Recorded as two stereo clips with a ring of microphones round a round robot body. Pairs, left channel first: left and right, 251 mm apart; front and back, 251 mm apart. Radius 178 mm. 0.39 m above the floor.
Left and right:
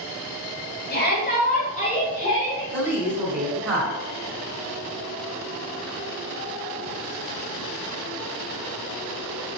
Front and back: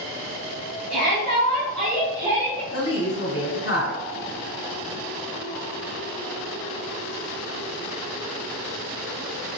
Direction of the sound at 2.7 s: 20° right.